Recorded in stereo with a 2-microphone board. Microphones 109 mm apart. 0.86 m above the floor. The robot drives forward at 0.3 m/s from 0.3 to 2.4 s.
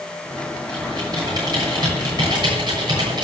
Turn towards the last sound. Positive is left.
turn(degrees=-40)  # may be behind; listen again after turning